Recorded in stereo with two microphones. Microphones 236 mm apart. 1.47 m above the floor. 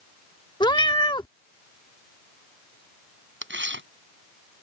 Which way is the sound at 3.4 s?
50° right (ahead or behind).